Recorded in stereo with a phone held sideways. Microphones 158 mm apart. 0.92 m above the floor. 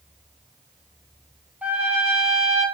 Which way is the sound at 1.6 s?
10° right (ahead or behind).